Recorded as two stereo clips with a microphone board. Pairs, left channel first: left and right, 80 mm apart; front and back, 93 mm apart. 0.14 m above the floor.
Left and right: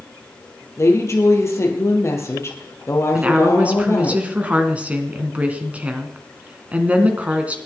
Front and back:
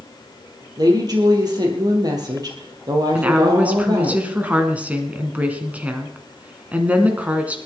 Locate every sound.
0.8 s a woman speaking: 140° left, 3 m
3.1 s a woman speaking: 130° right, 1.8 m